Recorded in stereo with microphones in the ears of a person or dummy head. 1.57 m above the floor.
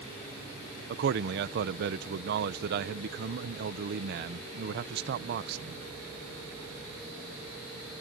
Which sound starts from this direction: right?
A man speaking, at 0.9 s.